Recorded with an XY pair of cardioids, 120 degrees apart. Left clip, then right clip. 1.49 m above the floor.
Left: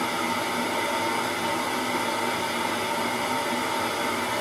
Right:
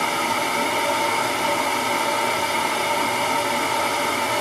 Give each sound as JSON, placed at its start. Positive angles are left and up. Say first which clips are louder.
{"t": 0.0, "sound": "a fan", "louder": "right 5 dB", "azimuth_deg": -60, "distance_m": 0.8}